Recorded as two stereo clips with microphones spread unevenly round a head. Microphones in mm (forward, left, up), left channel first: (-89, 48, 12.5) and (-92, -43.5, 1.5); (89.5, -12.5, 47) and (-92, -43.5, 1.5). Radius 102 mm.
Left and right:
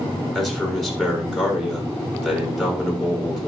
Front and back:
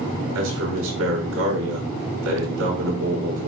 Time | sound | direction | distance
0.3 | a man speaking | 170° left | 6 m